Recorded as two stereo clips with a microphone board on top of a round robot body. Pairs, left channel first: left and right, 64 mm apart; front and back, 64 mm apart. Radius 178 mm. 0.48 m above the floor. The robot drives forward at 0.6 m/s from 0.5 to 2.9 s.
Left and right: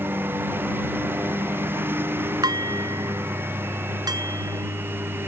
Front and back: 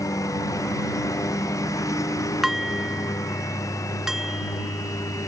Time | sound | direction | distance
0.0 | a lawn mower | 35° right | ?
2.4 | dishes clattering | 95° right | ?